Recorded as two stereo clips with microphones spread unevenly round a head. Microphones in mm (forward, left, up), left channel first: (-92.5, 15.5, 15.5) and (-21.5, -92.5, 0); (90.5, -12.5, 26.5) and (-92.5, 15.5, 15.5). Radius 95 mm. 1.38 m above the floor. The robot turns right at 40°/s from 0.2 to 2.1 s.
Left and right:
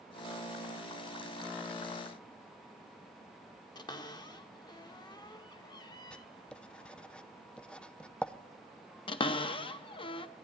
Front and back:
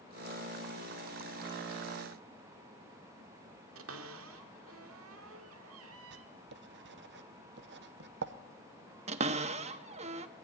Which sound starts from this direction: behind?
A cupboard door, at 3.8 s.